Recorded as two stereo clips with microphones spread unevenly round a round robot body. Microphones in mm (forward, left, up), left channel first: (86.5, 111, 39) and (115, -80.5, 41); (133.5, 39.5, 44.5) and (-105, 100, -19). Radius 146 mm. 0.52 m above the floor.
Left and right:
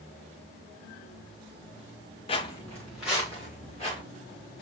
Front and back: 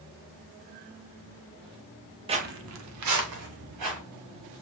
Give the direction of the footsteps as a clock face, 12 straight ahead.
9 o'clock.